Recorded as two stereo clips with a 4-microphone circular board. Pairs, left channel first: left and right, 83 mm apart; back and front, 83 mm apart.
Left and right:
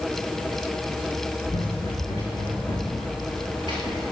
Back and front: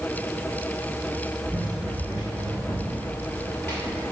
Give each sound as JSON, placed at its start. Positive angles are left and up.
{"t": 1.5, "sound": "running footsteps", "azimuth_deg": 85, "distance_m": 3.0}